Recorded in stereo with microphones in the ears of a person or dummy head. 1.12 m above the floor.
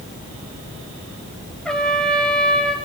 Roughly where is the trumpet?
Centre.